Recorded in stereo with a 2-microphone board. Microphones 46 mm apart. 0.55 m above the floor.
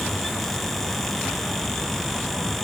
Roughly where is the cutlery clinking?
I don't hear cutlery clinking.